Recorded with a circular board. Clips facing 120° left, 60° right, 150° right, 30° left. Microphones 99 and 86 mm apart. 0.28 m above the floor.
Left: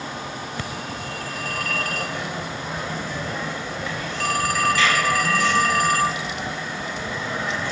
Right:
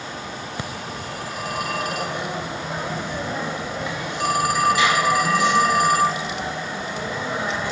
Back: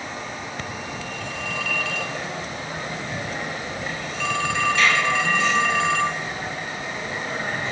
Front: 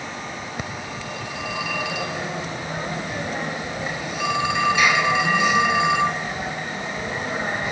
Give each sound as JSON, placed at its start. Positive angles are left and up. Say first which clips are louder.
{"t": 0.6, "sound": "a phone ringing", "louder": "even, even", "azimuth_deg": -25}